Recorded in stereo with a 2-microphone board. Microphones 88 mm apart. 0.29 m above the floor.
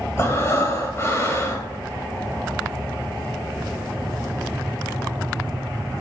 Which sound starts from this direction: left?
Breathing, at 0.2 s.